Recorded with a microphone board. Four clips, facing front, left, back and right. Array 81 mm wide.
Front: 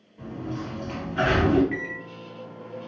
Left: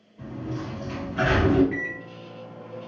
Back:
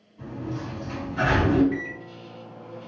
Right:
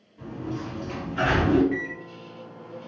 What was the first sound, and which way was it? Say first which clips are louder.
A sliding door: even, even; 25° right.